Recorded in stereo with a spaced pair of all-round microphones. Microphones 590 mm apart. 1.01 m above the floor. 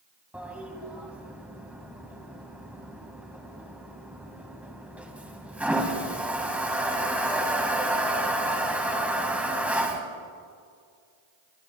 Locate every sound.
0.3 s a toilet flushing: centre (ahead or behind), 1.8 m